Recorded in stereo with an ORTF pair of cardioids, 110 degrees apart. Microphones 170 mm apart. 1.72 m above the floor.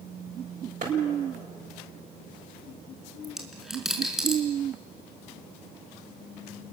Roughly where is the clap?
Ahead right.